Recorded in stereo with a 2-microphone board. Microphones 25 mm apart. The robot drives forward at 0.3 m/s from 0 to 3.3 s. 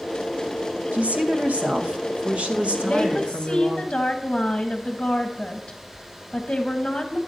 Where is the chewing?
No chewing in this recording.